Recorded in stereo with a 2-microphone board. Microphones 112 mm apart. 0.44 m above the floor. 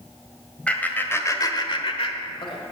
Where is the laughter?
10° left (ahead or behind), 2 m; by 2.6 s 50° left (ahead or behind), 1.8 m.